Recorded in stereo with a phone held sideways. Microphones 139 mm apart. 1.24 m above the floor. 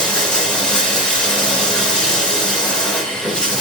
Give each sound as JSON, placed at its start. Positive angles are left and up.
{"t": 0.0, "sound": "running water", "side_deg": 5, "distance_m": 0.8}